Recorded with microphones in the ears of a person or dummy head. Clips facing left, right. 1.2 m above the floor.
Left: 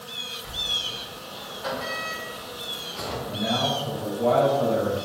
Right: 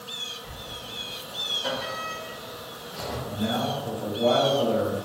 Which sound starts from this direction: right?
A man speaking, at 3.3 s.